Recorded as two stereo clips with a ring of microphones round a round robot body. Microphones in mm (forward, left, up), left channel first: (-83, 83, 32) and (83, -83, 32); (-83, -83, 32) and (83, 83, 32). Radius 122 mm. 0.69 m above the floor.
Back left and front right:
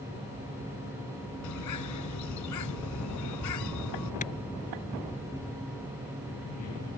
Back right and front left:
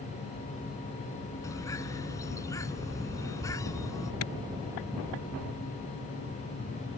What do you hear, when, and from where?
1.4 s a bird: 150° left
4.2 s a clap: 165° right